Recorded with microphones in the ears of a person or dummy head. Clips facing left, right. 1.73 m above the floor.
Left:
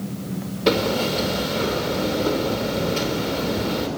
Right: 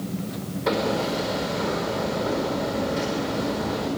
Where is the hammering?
40° left (ahead or behind), 4.5 m.